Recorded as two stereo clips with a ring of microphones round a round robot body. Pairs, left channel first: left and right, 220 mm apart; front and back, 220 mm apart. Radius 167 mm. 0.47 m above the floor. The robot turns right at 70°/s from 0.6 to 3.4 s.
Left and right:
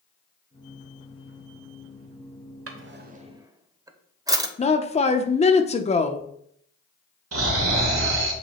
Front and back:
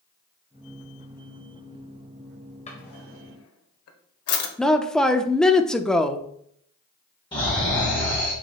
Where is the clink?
I don't hear a clink.